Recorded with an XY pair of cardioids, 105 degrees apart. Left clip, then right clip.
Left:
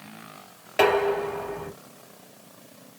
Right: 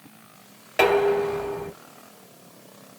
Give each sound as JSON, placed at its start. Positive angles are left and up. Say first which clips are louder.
{"t": 0.8, "sound": "dishes clattering", "louder": "right 2 dB", "azimuth_deg": -5, "distance_m": 2.0}